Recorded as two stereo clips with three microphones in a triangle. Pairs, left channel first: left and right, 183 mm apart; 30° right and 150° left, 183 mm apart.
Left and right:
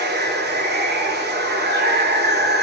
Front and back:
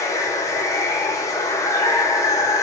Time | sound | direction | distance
0.0 | running water | 105° right | 0.7 m